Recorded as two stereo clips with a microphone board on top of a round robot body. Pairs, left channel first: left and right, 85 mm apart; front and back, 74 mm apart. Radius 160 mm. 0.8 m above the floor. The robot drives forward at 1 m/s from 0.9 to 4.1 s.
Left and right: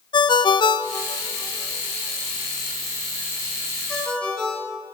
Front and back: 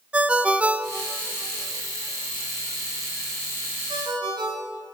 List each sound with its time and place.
0.1 s a ringtone: 110° left, 0.7 m; by 4.8 s 170° left, 3.5 m